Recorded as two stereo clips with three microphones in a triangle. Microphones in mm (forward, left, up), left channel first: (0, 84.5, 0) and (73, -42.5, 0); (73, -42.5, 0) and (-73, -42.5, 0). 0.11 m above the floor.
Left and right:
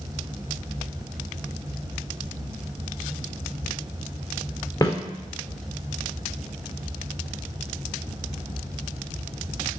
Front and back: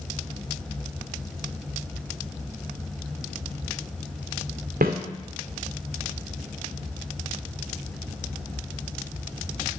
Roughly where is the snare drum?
Behind.